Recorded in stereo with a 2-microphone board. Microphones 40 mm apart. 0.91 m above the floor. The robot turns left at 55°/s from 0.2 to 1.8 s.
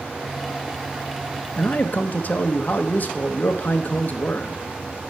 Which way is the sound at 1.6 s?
45° left (ahead or behind).